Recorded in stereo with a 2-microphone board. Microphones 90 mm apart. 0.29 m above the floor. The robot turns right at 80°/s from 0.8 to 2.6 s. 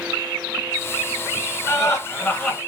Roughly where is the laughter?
Left.